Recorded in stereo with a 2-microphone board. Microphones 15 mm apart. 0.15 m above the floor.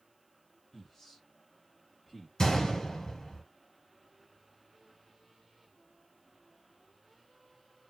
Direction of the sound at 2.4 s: 40° left (ahead or behind).